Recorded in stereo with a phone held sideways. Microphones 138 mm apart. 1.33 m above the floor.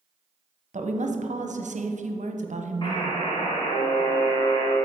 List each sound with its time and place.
0.7 s a woman speaking: 65° right (ahead or behind), 0.6 m
2.8 s a buzzer: 35° left (ahead or behind), 1.7 m